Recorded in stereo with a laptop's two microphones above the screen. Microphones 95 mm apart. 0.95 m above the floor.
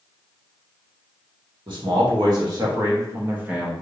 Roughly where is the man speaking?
Right.